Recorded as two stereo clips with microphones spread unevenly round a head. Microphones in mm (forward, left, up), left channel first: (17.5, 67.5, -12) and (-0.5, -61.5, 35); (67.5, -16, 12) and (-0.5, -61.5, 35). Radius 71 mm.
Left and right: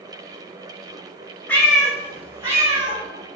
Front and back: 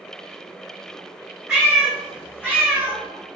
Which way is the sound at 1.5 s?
170° right.